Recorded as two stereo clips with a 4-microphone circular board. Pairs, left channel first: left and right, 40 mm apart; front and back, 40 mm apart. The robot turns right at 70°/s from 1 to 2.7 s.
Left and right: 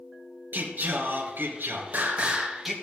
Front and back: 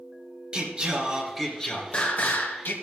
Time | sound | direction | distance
0.5 | singing | 115° right | 3 m